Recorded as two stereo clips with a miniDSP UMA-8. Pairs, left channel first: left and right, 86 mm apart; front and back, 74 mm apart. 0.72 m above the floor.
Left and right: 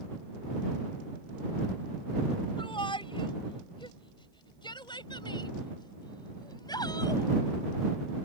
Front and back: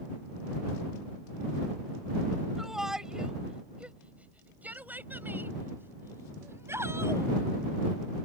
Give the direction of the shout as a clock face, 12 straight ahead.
9 o'clock.